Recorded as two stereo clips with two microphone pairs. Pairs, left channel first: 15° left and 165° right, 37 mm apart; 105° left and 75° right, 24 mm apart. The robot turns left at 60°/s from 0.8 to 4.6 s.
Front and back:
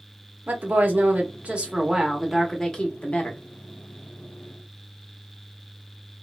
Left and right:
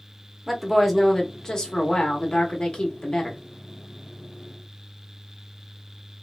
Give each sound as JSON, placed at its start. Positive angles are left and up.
{"t": 0.5, "sound": "a woman speaking", "azimuth_deg": -165, "distance_m": 0.8}